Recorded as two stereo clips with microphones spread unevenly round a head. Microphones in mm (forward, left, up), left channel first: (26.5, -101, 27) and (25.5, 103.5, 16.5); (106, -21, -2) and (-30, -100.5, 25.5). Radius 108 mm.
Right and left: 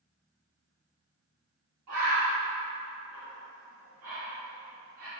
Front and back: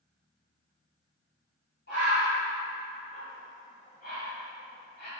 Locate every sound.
1.9 s a bird: 80° left, 1.4 m